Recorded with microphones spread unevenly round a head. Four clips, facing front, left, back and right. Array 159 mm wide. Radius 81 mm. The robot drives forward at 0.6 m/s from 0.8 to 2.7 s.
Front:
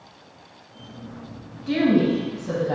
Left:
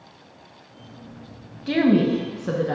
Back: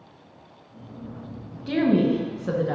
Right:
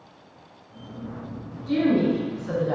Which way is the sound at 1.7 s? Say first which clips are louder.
Left 2 dB, front 1 dB; 85° left.